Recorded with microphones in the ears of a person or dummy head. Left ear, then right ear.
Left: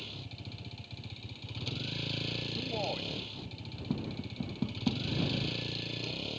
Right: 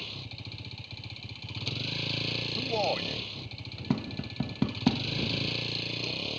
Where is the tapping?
65° right (ahead or behind).